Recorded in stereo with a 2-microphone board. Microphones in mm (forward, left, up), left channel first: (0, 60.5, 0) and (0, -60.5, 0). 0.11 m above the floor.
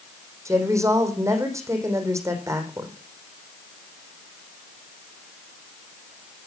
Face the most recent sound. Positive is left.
turn(degrees=-25)  # may be behind; listen again after turning